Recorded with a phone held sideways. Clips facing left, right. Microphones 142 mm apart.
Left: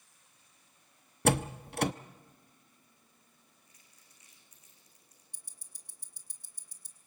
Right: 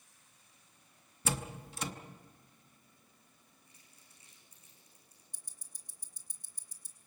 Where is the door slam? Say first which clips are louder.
Left 10 dB; 65° left (ahead or behind), 0.7 m.